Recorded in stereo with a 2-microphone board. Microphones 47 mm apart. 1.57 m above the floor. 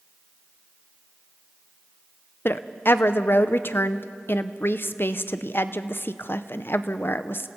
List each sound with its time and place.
2.5 s a woman speaking: 55° left (ahead or behind), 0.7 m